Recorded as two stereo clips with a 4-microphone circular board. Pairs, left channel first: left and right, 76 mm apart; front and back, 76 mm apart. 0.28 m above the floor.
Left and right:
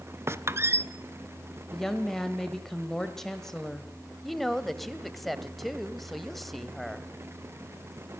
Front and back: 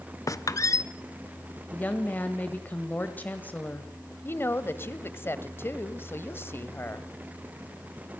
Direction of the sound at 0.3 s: 40° right.